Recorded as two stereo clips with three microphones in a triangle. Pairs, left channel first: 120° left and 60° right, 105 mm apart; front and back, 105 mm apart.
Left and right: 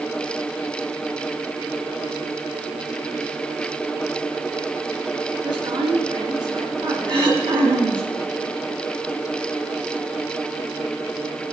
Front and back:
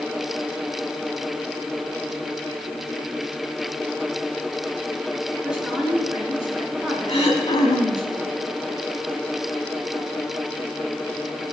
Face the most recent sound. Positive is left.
turn(degrees=-20)